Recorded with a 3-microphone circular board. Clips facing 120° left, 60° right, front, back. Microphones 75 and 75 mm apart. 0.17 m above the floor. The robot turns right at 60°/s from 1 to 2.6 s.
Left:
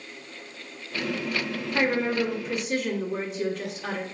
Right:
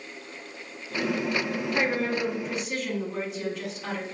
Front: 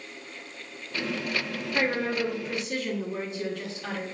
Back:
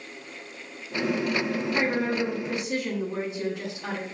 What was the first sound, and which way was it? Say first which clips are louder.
A woman speaking: left 3 dB, front 1 dB; 165° left.